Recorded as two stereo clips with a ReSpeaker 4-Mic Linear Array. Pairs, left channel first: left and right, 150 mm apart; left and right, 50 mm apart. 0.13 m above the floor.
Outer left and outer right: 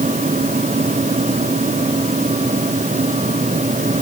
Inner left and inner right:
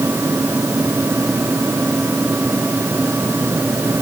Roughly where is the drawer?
No drawer in this recording.